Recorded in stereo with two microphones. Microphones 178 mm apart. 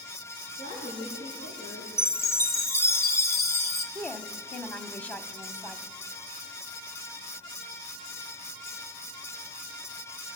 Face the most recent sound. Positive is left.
turn(degrees=10)  # may be behind; listen again after turning